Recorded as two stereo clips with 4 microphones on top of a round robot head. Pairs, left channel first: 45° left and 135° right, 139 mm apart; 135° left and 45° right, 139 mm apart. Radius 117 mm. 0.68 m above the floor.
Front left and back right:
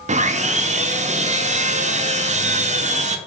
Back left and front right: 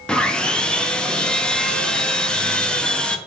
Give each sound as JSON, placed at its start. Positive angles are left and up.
{"t": 0.1, "sound": "sawing", "azimuth_deg": -140, "distance_m": 0.5}